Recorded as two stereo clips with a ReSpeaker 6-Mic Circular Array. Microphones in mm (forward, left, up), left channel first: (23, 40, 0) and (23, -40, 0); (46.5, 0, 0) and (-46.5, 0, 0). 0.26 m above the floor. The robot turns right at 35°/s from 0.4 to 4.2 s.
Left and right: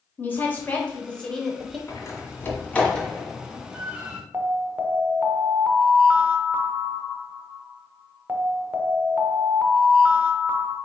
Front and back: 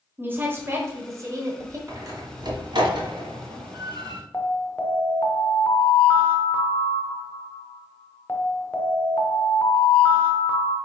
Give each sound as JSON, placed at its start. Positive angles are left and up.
{"t": 0.2, "sound": "a woman speaking", "azimuth_deg": 130, "distance_m": 1.1}
{"t": 1.9, "sound": "a door slam", "azimuth_deg": 130, "distance_m": 1.2}
{"t": 4.3, "sound": "an alarm", "azimuth_deg": -45, "distance_m": 0.9}